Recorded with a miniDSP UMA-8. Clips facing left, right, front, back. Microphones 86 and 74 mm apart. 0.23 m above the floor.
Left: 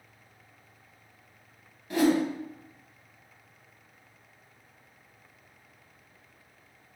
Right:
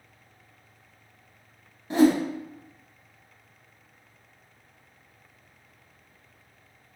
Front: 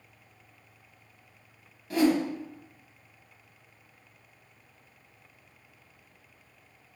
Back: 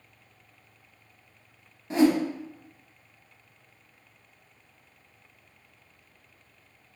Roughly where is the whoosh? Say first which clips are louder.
Right 4 dB, back 2 dB; behind right.